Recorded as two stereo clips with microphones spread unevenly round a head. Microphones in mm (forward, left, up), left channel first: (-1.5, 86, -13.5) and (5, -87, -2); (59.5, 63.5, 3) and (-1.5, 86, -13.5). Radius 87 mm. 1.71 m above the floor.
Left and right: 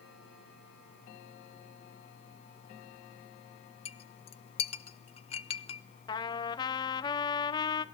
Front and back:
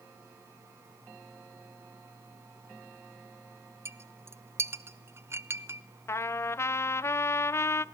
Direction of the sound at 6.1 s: 25° left.